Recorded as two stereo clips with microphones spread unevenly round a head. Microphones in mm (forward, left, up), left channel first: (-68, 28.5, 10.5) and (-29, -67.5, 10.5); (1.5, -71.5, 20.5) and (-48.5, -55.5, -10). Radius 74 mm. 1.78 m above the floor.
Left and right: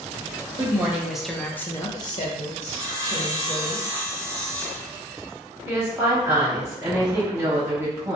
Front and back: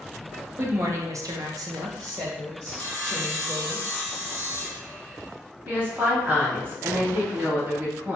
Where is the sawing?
75° left, 1.5 m.